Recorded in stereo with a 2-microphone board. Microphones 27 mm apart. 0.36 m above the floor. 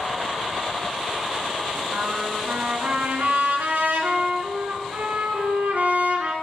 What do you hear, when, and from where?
1.9 s a trumpet: 75° right (ahead or behind), 3 m